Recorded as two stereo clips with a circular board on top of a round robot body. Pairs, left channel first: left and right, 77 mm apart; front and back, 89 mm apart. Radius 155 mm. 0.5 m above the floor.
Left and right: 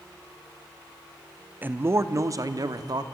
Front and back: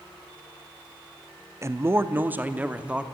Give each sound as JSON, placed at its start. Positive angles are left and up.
{"t": 1.6, "sound": "a man speaking", "azimuth_deg": -145, "distance_m": 0.8}